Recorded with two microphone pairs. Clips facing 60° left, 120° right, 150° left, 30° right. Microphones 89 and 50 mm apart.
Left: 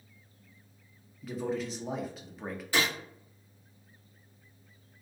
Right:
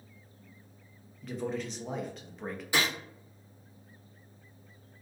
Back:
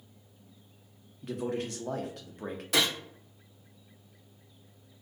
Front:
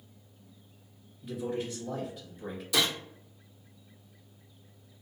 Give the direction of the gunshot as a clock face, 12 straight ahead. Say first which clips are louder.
Even, back 1 dB; 7 o'clock.